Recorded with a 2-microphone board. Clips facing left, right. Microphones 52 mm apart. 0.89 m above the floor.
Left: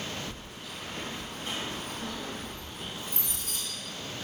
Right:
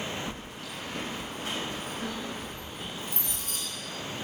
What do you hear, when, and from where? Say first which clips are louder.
0.3 s keys jangling: right 3 dB; 45° right (ahead or behind), 0.5 m